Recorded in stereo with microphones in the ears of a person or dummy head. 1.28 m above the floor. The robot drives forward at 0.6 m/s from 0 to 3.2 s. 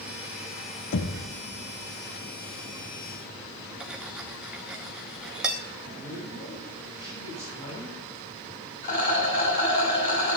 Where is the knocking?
60° left (ahead or behind), 0.8 m; by 1.3 s 50° left (ahead or behind), 0.9 m.